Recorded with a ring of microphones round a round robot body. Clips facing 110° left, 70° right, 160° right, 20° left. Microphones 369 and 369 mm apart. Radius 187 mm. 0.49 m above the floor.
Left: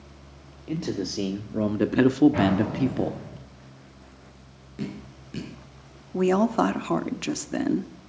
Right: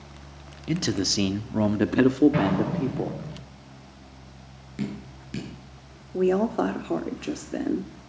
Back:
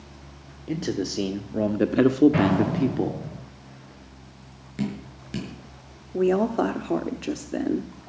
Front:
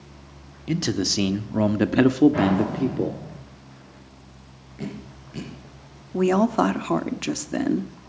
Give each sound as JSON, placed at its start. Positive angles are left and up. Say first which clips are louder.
{"t": 0.7, "sound": "a man speaking", "louder": "right 2 dB, front 2 dB", "azimuth_deg": -30, "distance_m": 1.2}
{"t": 2.3, "sound": "an explosion", "louder": "left 1 dB, even", "azimuth_deg": -120, "distance_m": 9.5}
{"t": 4.8, "sound": "dripping", "louder": "right 2 dB, back 4 dB", "azimuth_deg": -130, "distance_m": 8.0}
{"t": 6.1, "sound": "a woman speaking", "louder": "left 1 dB, front 1 dB", "azimuth_deg": 65, "distance_m": 0.8}